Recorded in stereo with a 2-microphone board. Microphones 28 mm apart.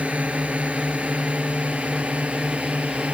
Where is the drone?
65° right (ahead or behind).